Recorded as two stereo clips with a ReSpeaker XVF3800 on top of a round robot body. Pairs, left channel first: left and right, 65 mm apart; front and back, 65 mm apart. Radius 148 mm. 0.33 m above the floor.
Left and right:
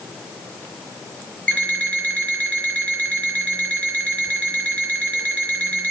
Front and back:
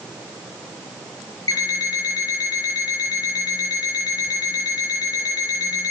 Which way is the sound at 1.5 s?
25° left.